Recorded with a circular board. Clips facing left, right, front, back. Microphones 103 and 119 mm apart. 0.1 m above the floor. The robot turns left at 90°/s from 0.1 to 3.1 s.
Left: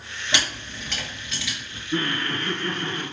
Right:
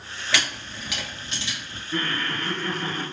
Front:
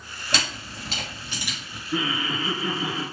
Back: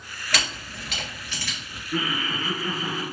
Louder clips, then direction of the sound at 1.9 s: Left 2 dB, front 1 dB; 55° left.